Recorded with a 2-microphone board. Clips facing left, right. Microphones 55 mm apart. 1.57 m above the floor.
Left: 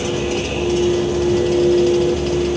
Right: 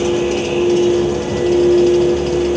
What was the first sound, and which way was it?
Only background noise.